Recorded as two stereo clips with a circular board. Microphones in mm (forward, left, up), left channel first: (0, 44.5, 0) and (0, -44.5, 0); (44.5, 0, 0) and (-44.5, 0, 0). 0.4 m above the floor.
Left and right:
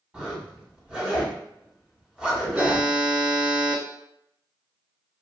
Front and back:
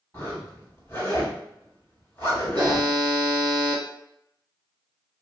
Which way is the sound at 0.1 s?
25° right.